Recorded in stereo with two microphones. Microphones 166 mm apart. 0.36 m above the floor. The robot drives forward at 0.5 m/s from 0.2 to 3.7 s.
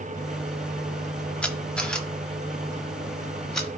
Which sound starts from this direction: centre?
A camera shutter, at 1.4 s.